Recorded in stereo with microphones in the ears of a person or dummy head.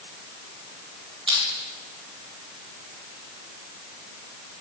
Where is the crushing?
35° right (ahead or behind), 2 m.